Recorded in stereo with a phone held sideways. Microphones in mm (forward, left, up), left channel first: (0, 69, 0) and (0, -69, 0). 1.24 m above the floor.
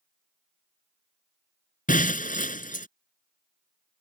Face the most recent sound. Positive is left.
turn(degrees=70)  # may be behind; listen again after turning